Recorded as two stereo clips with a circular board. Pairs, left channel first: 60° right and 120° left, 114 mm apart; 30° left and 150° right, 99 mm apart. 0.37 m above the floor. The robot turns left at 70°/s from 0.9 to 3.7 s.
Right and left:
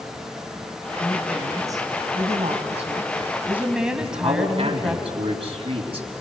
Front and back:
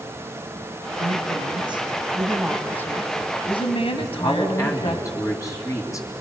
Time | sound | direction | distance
1.0 | a woman speaking | 135° right | 2.5 m
4.0 | a man speaking | 85° left | 3.5 m